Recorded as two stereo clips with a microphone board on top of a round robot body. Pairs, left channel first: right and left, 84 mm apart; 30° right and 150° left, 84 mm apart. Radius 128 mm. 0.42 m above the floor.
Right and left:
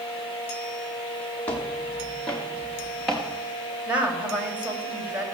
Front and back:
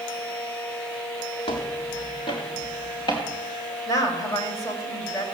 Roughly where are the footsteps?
Ahead.